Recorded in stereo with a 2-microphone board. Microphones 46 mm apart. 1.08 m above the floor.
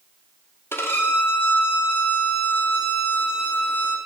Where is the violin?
60° left (ahead or behind), 1.0 m.